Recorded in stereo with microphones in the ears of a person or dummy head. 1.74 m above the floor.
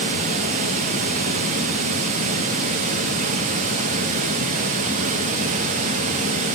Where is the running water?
50° right (ahead or behind), 0.8 m.